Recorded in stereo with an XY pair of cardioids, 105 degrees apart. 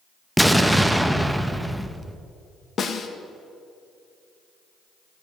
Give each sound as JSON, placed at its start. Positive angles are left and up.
{"t": 0.4, "sound": "an explosion", "azimuth_deg": -5, "distance_m": 0.8}
{"t": 2.8, "sound": "a snare drum", "azimuth_deg": 50, "distance_m": 1.3}